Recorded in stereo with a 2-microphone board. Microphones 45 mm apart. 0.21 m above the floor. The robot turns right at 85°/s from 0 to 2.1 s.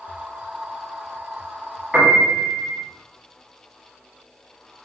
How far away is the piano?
About 1.2 m.